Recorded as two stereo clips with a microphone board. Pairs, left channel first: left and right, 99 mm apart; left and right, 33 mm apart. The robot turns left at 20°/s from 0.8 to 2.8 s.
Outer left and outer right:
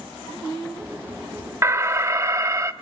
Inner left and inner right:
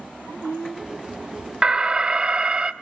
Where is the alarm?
30° right (ahead or behind), 0.6 m.